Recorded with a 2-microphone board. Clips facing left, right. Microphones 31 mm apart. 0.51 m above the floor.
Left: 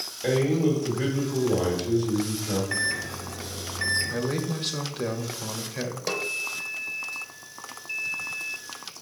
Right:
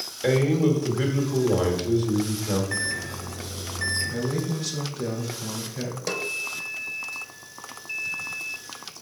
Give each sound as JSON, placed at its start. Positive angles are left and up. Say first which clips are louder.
{"t": 0.2, "sound": "a man speaking", "louder": "right 2 dB", "side_deg": -50, "distance_m": 1.7}
{"t": 2.7, "sound": "a microwave", "louder": "left 1 dB", "side_deg": 20, "distance_m": 0.6}
{"t": 4.1, "sound": "a man speaking", "louder": "even", "side_deg": 45, "distance_m": 0.9}
{"t": 6.1, "sound": "a snare drum", "louder": "even", "side_deg": 10, "distance_m": 0.7}